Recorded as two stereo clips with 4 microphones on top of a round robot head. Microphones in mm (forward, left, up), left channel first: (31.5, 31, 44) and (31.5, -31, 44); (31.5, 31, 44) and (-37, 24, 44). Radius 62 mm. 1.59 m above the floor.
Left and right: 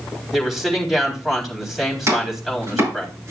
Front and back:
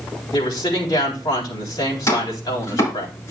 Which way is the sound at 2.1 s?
50° right.